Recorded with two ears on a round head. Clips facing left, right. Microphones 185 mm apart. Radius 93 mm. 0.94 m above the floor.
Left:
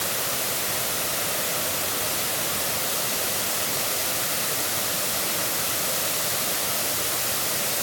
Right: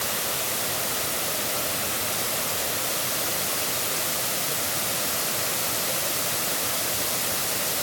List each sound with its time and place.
Only background noise.